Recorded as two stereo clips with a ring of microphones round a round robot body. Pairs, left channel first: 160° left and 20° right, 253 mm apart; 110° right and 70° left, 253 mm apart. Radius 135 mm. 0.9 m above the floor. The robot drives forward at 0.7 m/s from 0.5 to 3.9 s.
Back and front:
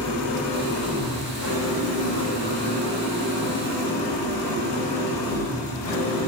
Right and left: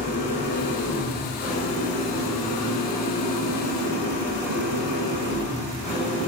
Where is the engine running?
175° right, 2.5 m.